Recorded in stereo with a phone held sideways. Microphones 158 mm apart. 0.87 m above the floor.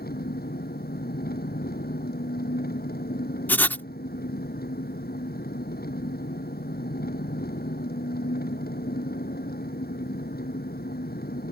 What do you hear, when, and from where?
0.0 s an engine running: 75° left (ahead or behind)
3.5 s writing: 10° left (ahead or behind)